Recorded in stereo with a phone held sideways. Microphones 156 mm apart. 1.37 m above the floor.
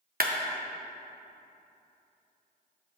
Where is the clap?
70° right (ahead or behind), 0.9 m.